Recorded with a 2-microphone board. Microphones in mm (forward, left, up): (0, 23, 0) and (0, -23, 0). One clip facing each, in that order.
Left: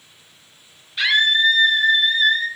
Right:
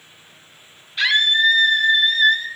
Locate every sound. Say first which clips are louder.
1.0 s a scream: even; centre (ahead or behind), 1.2 m; by 2.5 s 10° left (ahead or behind), 1.7 m